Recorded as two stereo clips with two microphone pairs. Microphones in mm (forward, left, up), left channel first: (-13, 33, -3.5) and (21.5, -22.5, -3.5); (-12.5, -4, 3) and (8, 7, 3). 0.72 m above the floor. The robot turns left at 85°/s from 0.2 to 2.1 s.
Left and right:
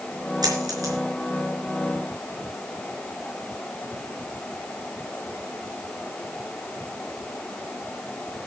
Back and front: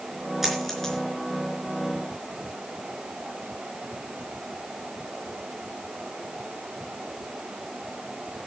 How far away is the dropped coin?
About 4.5 m.